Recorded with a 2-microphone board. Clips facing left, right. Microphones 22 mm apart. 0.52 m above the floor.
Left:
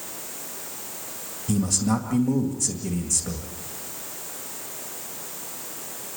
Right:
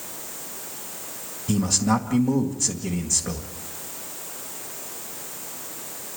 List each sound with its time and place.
1.5 s a man speaking: 20° right (ahead or behind), 2 m